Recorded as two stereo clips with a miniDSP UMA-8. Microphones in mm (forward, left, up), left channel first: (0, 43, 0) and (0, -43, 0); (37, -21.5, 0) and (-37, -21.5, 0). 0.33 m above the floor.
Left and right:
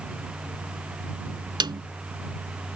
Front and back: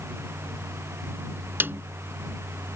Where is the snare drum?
120° right.